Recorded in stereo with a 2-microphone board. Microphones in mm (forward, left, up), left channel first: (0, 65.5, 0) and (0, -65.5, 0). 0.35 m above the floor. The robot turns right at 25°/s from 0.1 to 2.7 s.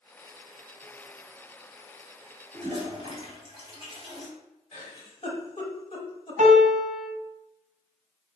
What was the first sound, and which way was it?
A toilet flushing, 40° right (ahead or behind).